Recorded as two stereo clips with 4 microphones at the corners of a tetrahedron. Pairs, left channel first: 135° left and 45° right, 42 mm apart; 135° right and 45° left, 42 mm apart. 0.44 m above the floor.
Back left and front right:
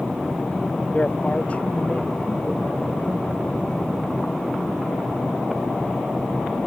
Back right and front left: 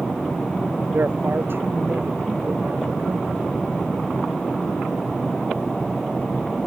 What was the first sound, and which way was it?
A man speaking, 75° left.